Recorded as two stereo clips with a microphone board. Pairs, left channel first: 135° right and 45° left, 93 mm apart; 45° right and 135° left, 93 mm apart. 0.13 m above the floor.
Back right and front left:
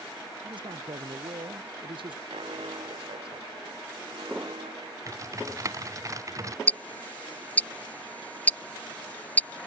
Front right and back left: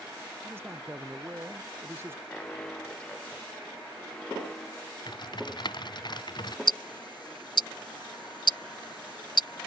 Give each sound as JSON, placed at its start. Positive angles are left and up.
{"t": 0.4, "sound": "a man speaking", "azimuth_deg": 70}
{"t": 2.3, "sound": "an alarm", "azimuth_deg": 35}
{"t": 5.1, "sound": "typing on a keyboard", "azimuth_deg": -10}
{"t": 6.7, "sound": "ticking", "azimuth_deg": -65}